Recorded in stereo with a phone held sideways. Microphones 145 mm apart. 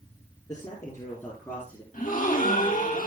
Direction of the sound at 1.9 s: 70° left (ahead or behind).